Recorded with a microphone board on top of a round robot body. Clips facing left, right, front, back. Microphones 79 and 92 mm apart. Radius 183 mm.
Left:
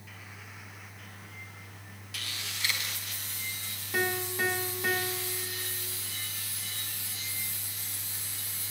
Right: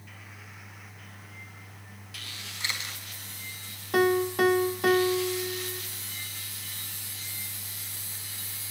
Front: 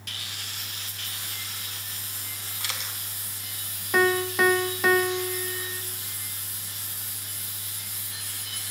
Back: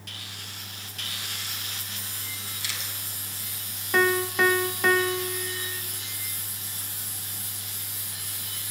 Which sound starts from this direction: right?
A piano, at 3.9 s.